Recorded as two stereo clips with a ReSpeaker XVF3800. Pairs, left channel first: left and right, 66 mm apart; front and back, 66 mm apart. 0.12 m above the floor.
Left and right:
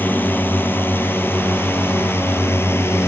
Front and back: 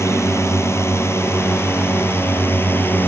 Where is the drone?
35° left; by 3.1 s 50° left.